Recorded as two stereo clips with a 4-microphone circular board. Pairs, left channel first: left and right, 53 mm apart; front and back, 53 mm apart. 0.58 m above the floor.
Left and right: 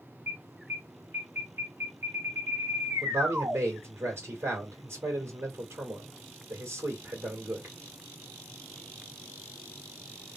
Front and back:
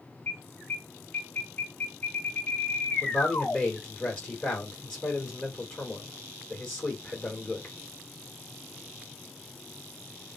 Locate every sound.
0.3 s an alarm: 60° right, 2.5 m
3.0 s a man speaking: 65° right, 2.5 m